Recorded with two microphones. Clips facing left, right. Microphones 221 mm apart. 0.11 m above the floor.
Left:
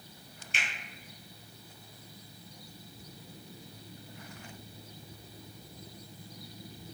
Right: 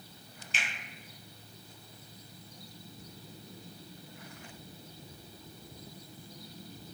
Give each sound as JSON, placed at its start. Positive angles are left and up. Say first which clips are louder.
{"t": 0.5, "sound": "a finger snap", "louder": "even", "side_deg": 55, "distance_m": 1.7}